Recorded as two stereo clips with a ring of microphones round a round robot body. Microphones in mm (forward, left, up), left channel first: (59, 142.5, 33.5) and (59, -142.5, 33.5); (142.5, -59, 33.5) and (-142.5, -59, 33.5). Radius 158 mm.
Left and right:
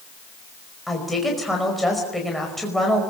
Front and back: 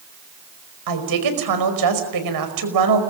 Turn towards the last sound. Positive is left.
turn(degrees=180)